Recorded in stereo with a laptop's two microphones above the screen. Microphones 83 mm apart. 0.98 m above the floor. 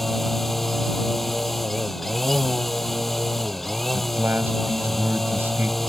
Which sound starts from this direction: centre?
A machine running, at 0.0 s.